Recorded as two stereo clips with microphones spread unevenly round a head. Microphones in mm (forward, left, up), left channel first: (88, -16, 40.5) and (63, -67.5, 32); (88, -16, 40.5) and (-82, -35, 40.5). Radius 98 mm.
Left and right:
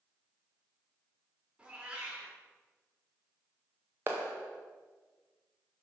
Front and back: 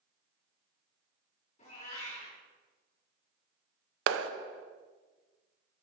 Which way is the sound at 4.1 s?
175° left.